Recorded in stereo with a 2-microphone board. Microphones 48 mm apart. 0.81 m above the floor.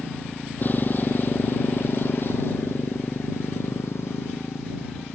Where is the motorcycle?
40° left (ahead or behind); by 5.2 s 65° left (ahead or behind).